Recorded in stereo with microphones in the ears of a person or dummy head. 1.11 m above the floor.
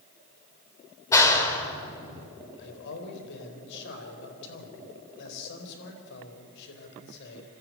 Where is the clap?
15° left (ahead or behind), 3 m.